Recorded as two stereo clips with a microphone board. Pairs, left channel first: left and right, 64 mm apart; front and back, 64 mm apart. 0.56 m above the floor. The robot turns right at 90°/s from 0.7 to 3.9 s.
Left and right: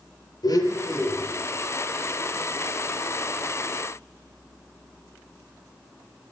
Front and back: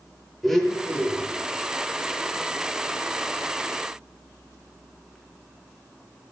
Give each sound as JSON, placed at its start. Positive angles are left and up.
{"t": 0.4, "sound": "a blender", "azimuth_deg": 85, "distance_m": 6.0}